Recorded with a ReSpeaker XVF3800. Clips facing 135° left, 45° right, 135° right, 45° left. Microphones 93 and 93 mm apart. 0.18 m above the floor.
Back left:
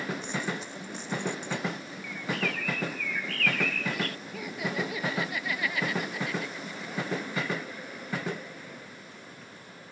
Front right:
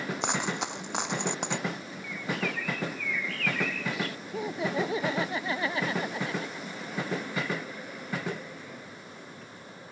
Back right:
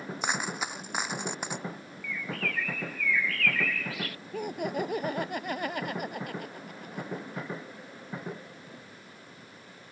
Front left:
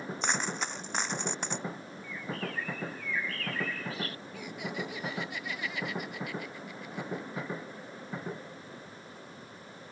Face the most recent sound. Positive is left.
turn(degrees=-100)